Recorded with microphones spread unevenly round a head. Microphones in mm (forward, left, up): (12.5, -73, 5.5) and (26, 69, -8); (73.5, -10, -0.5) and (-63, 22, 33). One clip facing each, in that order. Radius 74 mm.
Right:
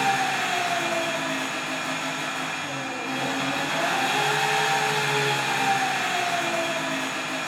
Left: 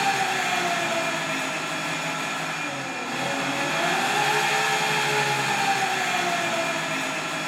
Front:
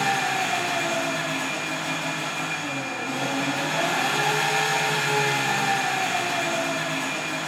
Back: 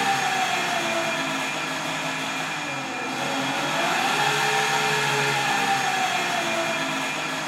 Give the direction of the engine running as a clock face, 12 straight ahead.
2 o'clock.